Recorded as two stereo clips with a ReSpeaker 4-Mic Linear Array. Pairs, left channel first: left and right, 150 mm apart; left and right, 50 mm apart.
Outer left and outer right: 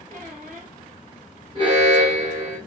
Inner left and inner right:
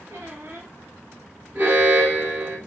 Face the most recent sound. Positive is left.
turn(degrees=-40)  # may be behind; listen again after turning